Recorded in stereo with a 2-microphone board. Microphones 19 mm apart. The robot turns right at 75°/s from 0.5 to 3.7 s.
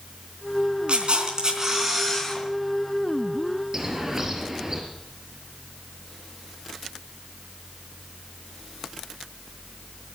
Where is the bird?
25° right (ahead or behind), 3 m.